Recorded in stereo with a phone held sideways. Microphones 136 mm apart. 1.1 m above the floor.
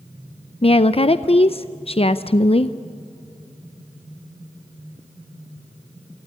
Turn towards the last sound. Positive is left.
turn(degrees=45)  # may be behind; listen again after turning